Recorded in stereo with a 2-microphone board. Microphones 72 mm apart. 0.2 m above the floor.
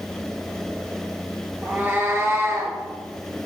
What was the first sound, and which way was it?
A cat meowing, 25° right (ahead or behind).